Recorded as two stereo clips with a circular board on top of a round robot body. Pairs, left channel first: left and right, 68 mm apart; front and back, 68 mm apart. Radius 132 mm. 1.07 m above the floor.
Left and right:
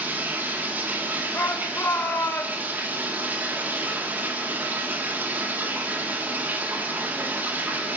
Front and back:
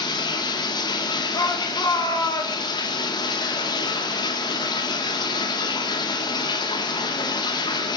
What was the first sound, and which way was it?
Running water, 20° right.